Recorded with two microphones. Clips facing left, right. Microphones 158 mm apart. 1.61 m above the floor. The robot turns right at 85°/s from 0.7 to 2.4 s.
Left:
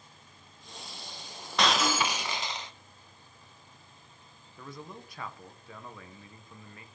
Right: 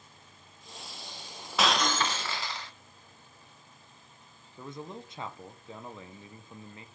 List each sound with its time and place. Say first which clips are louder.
1.6 s breaking glass: even; 5° right (ahead or behind), 0.7 m; by 2.7 s 20° left (ahead or behind), 0.7 m
4.6 s a man speaking: right 3 dB; 20° right (ahead or behind), 1.2 m